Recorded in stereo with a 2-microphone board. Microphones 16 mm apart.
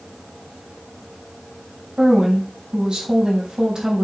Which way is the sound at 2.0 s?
55° right (ahead or behind).